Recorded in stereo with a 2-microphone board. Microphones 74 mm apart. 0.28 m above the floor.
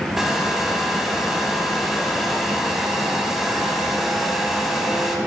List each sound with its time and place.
0.2 s a hair dryer: 5° right (ahead or behind), 1.0 m